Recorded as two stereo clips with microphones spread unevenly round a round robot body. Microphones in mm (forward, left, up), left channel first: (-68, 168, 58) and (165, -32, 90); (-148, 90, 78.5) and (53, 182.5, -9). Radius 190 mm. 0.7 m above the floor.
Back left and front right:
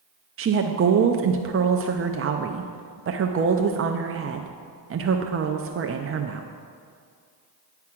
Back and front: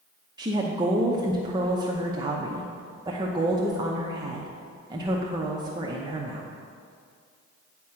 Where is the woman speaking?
Straight ahead, 0.6 m.